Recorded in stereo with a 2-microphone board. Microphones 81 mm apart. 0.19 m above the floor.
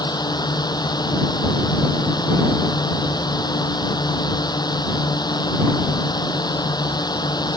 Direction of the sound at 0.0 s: 55° left (ahead or behind).